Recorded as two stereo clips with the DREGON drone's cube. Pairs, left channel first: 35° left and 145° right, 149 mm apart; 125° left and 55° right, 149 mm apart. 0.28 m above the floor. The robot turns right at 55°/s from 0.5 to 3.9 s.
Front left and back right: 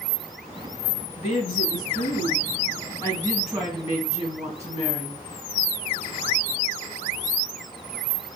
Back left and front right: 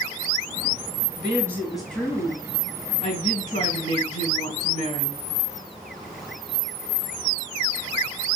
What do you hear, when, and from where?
1.2 s a woman speaking: straight ahead, 2.5 m; by 5.2 s 150° left, 2.5 m